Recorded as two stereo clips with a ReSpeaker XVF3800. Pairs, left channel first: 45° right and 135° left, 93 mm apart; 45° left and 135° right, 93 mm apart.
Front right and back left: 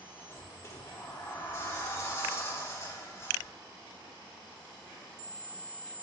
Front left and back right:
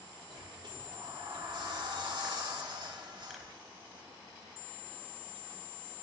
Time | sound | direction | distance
0.3 | a sliding door | 105° right | 2.5 m